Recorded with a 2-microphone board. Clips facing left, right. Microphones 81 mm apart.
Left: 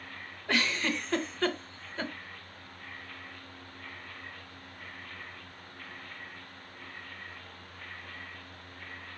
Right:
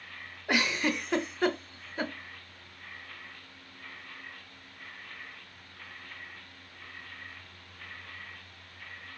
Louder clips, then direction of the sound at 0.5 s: Right 2 dB; 15° right (ahead or behind).